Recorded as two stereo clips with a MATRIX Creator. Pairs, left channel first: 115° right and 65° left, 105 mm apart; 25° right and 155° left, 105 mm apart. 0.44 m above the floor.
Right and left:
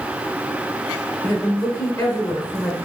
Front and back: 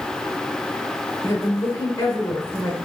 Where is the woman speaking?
75° right, 1.5 m.